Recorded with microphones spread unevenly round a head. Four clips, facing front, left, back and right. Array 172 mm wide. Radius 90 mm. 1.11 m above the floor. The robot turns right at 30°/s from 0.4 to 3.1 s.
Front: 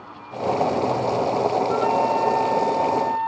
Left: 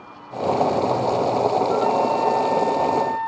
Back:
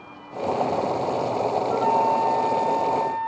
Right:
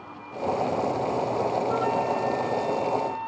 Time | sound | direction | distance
1.7 | a flute | 10° right | 1.5 m